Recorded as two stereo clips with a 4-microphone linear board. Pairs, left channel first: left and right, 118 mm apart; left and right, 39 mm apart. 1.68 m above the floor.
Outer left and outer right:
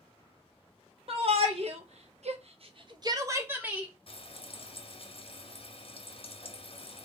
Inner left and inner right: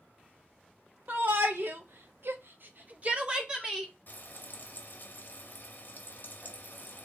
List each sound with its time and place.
1.1 s a shout: 50° right (ahead or behind), 1.1 m; by 3.9 s 10° right (ahead or behind), 1.0 m
4.1 s frying: 50° left (ahead or behind), 0.7 m